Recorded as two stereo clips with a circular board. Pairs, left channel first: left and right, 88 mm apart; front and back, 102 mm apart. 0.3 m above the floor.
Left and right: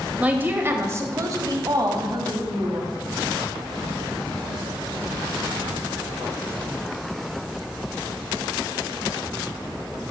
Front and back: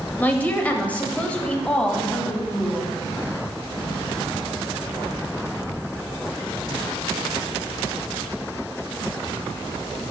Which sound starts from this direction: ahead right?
A woman speaking, at 0.2 s.